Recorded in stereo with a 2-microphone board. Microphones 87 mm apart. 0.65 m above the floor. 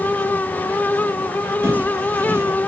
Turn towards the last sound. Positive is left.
turn(degrees=-30)  # may be behind; listen again after turning